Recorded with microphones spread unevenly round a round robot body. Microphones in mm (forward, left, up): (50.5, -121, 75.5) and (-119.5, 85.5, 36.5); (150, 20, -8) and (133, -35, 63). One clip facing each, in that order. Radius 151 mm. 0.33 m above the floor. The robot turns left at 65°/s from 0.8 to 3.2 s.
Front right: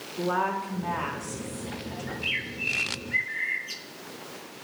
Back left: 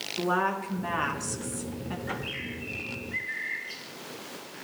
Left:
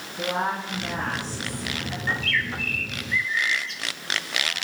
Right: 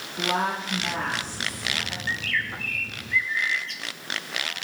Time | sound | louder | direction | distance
0.2 | a woman speaking | even, even | 150° right | 5 m
2.1 | a bird | back left 1 dB, left 3 dB | 10° right | 3.5 m